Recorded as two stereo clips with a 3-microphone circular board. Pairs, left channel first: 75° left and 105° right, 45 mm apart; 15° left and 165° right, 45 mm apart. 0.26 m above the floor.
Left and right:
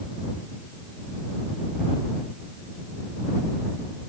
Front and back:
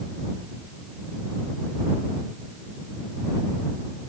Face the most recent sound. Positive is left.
No sound to turn to.